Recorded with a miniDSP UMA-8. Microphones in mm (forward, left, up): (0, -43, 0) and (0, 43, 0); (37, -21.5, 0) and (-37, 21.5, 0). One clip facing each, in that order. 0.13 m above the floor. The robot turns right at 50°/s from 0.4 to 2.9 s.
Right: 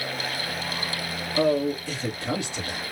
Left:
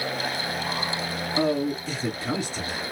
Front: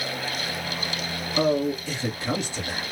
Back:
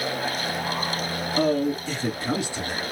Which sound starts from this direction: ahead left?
A man speaking, at 1.4 s.